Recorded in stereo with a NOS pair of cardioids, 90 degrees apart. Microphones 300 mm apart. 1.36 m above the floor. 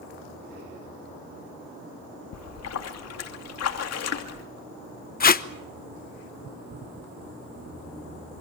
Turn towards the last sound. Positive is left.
turn(degrees=30)